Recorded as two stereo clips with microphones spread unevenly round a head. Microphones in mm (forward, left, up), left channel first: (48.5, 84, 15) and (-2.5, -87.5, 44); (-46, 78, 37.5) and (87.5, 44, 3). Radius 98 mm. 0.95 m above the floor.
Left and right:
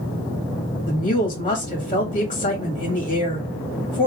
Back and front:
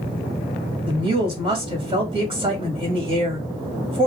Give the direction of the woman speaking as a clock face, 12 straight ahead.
11 o'clock.